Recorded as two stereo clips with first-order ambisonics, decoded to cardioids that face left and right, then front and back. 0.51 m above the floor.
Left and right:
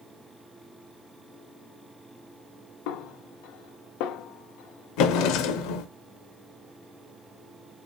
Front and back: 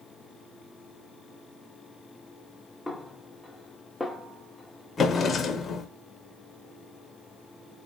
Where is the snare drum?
85° left, 0.6 m.